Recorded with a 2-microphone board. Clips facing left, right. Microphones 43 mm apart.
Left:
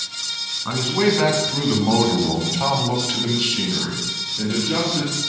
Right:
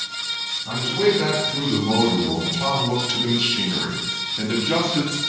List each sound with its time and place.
0.7 s a man speaking: 60° left (ahead or behind), 2 m; by 5.2 s 50° right (ahead or behind), 1.7 m